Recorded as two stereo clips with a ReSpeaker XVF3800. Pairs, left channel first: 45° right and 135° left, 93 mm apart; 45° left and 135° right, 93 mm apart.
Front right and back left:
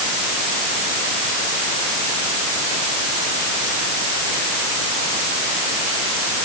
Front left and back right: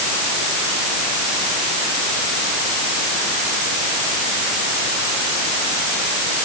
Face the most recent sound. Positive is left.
No sound to turn to.